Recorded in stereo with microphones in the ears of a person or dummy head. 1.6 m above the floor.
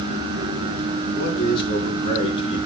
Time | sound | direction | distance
1.1 | a man speaking | 25° left (ahead or behind) | 5.5 m